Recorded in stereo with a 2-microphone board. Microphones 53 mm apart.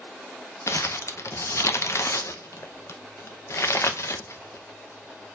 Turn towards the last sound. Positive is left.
turn(degrees=60)  # may be behind; listen again after turning